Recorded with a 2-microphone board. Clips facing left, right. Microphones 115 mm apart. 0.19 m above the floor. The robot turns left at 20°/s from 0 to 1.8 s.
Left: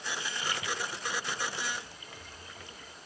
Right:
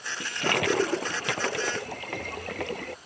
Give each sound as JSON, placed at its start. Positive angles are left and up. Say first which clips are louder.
{"t": 0.2, "sound": "a toilet flushing", "louder": "right 14 dB", "azimuth_deg": -70}